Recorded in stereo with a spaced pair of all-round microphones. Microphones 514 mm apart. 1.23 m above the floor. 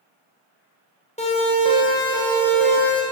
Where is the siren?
15° left (ahead or behind), 6.5 m; by 3.0 s 5° left (ahead or behind), 7.5 m.